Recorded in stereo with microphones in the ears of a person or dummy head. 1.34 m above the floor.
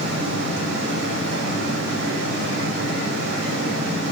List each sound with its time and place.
0.0 s a fan: 80° right, 5.5 m